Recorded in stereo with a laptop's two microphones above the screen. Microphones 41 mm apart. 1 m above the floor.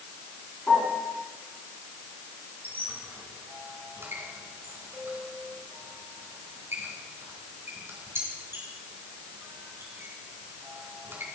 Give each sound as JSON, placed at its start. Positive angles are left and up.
{"t": 0.7, "sound": "a piano", "side_deg": 40, "distance_m": 4.0}
{"t": 2.6, "sound": "a squeak", "side_deg": -85, "distance_m": 3.5}